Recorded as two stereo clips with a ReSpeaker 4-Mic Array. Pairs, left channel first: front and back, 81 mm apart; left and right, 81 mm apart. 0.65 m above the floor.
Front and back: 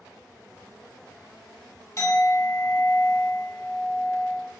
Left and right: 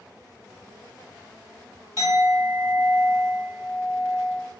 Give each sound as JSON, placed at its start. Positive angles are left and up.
{"t": 2.0, "sound": "a clink", "azimuth_deg": -45, "distance_m": 1.3}